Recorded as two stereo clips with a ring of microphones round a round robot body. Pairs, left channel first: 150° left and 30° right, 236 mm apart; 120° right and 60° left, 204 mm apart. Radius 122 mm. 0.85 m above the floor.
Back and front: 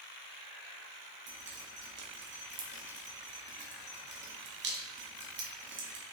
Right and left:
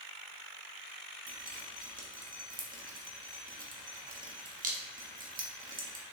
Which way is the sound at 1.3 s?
10° left.